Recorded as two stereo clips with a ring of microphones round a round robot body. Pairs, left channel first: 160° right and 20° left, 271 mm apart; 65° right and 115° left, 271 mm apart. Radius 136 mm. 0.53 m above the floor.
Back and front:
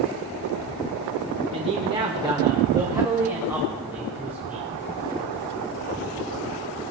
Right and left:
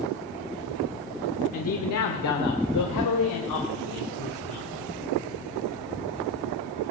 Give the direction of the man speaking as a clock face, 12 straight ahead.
1 o'clock.